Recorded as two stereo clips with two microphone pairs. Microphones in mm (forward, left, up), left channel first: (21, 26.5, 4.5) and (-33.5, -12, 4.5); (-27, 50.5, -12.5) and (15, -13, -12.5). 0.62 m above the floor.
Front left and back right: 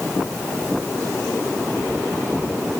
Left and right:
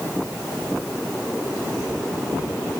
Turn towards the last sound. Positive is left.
No sound to turn to.